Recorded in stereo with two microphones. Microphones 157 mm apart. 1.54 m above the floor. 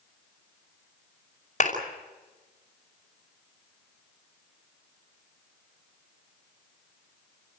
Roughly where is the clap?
Left.